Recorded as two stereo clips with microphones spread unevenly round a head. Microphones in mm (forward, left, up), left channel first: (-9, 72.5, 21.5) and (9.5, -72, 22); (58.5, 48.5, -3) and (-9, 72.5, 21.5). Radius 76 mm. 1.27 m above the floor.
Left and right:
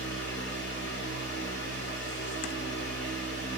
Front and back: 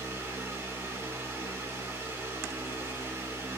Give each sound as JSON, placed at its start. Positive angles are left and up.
{"t": 0.0, "sound": "a fan", "azimuth_deg": 110, "distance_m": 2.5}